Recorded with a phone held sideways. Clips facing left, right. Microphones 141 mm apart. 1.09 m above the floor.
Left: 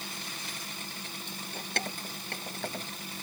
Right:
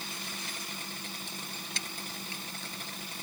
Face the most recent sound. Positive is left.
turn(degrees=60)  # may be behind; listen again after turning